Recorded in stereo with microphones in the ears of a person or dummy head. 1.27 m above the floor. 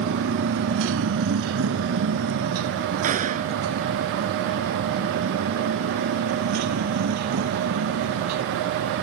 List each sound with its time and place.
0.0 s a motorcycle: 60° right (ahead or behind); by 9.1 s 80° right
3.0 s a gunshot: 40° right (ahead or behind)